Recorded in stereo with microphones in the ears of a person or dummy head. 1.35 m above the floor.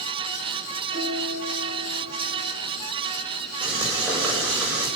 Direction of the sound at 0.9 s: 65° left (ahead or behind).